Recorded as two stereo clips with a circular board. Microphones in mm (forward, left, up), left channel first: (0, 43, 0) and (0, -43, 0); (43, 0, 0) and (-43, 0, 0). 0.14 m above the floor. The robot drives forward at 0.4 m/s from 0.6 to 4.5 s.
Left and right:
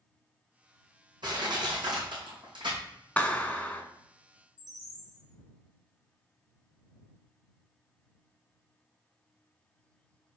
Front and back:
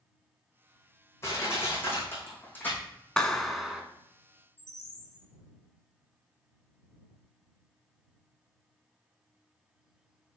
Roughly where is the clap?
Ahead left.